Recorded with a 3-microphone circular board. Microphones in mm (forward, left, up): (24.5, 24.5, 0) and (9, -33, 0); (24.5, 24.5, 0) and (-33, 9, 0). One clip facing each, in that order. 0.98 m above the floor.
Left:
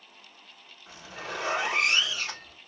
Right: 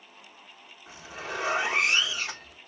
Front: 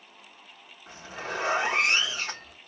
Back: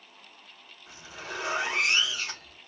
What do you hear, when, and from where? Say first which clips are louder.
0.9 s a zipper: right 1 dB, front 5 dB; 30° right, 1.3 m